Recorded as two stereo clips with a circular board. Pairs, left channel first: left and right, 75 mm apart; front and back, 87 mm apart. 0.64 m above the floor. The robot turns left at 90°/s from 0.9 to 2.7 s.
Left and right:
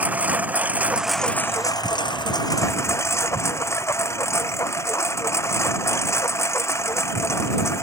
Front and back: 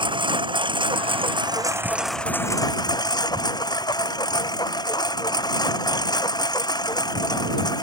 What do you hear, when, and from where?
0.0 s a lawn mower: 160° right; by 7.8 s 35° left